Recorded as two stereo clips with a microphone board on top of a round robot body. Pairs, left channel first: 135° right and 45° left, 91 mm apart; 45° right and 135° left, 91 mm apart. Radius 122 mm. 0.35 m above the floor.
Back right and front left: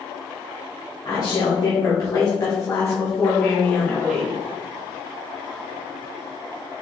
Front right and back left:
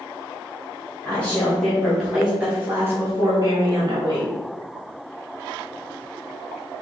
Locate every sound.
1.1 s a woman speaking: 110° right, 1.6 m; by 4.3 s 145° left, 1.7 m